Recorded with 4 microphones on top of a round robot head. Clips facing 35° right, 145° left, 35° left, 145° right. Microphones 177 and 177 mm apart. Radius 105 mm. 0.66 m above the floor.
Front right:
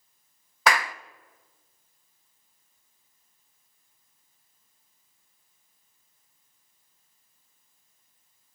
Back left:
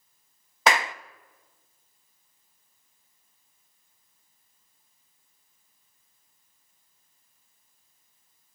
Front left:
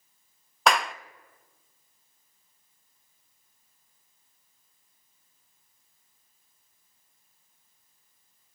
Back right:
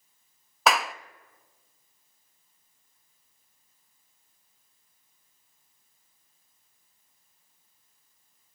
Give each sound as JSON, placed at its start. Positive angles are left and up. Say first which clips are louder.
{"t": 0.7, "sound": "a clap", "louder": "back left 1 dB, even", "azimuth_deg": 125, "distance_m": 0.9}